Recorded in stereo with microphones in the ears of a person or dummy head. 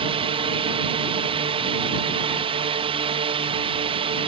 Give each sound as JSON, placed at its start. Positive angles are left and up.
{"t": 0.0, "sound": "a drone", "side_deg": -25}